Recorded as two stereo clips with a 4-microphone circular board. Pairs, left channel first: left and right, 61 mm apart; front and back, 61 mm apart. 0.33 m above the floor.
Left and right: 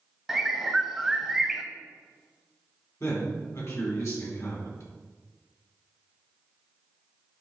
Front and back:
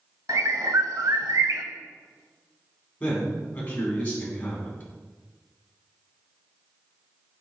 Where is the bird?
175° right, 0.6 m.